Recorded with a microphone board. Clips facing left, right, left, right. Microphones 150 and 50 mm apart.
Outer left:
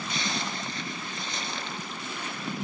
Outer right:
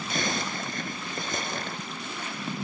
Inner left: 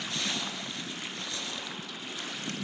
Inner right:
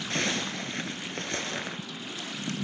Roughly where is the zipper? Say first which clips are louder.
Outer right 4 dB, inner right 6 dB; right.